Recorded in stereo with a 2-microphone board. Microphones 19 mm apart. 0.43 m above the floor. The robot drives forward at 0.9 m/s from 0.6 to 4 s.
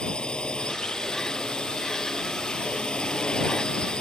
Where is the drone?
55° left (ahead or behind); by 4.0 s 60° left (ahead or behind).